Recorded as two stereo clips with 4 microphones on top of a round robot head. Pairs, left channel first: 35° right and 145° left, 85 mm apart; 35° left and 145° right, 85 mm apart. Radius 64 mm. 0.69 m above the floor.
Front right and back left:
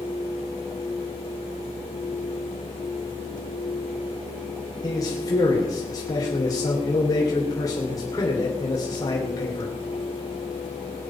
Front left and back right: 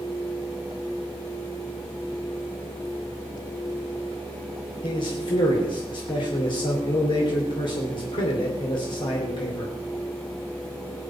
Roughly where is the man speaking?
Ahead.